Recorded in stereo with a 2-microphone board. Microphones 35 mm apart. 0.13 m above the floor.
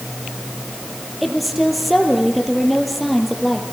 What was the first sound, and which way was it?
A woman speaking, 5° right (ahead or behind).